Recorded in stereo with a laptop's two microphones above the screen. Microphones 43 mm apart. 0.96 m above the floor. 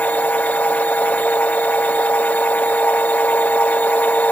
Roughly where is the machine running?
Left.